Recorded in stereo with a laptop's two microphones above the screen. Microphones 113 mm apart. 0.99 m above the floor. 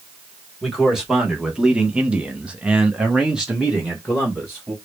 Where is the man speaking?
5° right (ahead or behind), 1.3 m.